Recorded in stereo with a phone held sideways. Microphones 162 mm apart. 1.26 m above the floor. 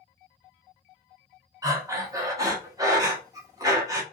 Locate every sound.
1.6 s breathing: 20° right (ahead or behind), 0.8 m